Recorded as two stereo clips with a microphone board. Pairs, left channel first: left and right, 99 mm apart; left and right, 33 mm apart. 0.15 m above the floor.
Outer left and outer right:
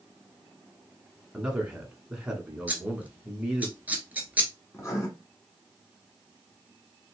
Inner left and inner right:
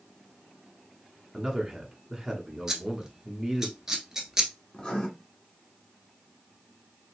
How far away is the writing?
About 1.6 m.